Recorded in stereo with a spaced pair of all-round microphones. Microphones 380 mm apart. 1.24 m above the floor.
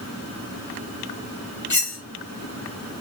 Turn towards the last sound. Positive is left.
turn(degrees=50)  # may be behind; listen again after turning